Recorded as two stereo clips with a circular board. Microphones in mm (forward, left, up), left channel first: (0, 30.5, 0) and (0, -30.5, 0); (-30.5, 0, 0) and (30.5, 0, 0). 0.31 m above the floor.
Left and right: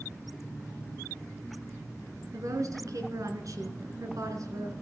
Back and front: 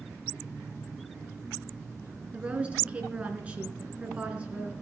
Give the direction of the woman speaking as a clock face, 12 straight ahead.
2 o'clock.